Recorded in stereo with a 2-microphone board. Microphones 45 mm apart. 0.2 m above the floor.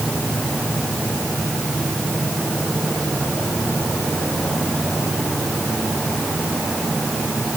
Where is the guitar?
No guitar in this recording.